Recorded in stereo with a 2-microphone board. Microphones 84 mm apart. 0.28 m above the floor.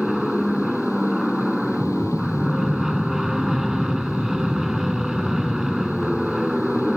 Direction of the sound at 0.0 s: 5° right (ahead or behind).